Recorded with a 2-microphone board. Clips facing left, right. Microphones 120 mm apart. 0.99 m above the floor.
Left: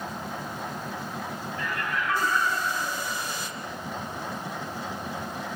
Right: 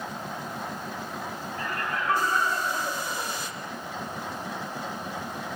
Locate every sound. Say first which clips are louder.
1.6 s laughter: even; 45° right (ahead or behind), 4.5 m